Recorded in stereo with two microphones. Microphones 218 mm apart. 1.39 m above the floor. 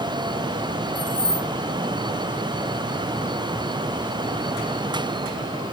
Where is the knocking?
No knocking in this recording.